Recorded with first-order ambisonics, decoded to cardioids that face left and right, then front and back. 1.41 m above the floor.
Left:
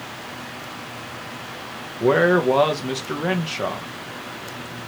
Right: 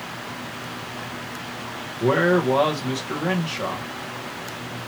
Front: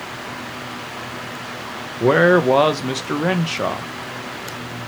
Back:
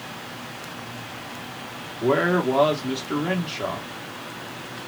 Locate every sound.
2.0 s a man speaking: 15° left, 0.8 m